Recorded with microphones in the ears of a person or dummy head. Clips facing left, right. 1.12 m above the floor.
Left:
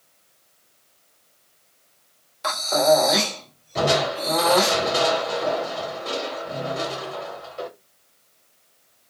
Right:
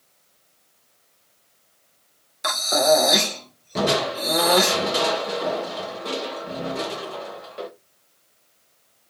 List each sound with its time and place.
2.4 s breathing: 20° right (ahead or behind), 1.0 m
3.8 s crushing: 70° right (ahead or behind), 1.1 m